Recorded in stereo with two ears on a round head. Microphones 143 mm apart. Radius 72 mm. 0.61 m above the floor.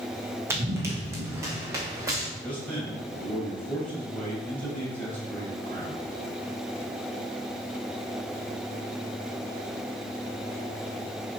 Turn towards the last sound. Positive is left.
turn(degrees=10)  # may be behind; listen again after turning